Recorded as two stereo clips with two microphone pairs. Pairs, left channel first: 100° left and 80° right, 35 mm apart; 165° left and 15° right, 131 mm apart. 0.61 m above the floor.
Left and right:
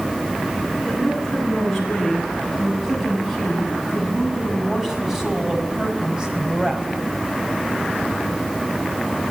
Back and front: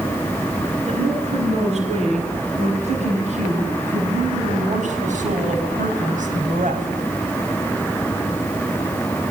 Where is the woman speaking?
20° left, 9.5 m; by 6.9 s 15° right, 4.5 m.